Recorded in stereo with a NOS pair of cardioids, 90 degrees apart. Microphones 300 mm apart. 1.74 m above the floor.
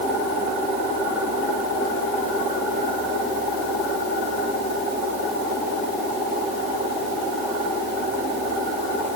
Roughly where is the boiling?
No boiling in this recording.